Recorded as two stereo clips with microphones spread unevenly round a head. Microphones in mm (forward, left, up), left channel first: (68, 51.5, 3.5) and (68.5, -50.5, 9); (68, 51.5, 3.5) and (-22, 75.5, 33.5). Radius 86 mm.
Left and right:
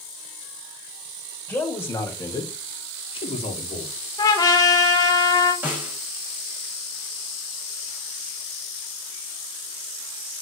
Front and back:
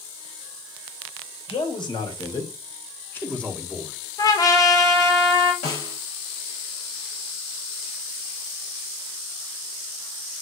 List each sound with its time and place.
1.5 s a man speaking: 20° left, 3 m; by 4.0 s 90° left, 1.9 m
4.2 s a trumpet: 45° left, 1.5 m
5.6 s a snare drum: 20° right, 5.5 m